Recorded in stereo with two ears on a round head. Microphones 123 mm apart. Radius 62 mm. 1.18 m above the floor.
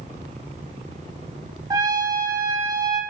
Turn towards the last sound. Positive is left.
turn(degrees=-25)  # may be behind; listen again after turning